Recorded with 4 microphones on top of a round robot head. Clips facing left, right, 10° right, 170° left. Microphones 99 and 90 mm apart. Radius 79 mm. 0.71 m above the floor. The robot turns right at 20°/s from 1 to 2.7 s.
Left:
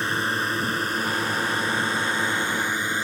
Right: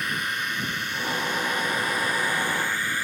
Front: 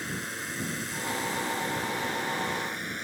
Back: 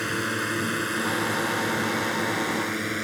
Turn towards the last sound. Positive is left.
turn(degrees=160)